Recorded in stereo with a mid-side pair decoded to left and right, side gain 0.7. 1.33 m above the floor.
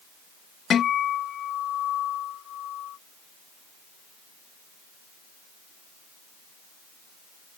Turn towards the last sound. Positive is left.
turn(degrees=35)